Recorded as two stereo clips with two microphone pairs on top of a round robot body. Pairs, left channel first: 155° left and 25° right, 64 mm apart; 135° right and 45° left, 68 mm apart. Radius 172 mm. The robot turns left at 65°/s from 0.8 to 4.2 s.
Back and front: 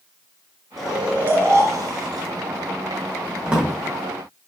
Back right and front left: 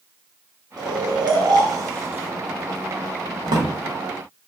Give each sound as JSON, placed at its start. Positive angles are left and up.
{"t": 0.8, "sound": "snoring", "azimuth_deg": 65, "distance_m": 0.5}
{"t": 3.5, "sound": "a drawer", "azimuth_deg": 45, "distance_m": 0.9}